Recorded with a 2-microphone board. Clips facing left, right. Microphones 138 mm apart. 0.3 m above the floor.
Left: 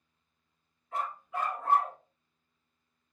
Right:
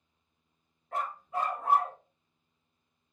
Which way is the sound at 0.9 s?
55° right (ahead or behind).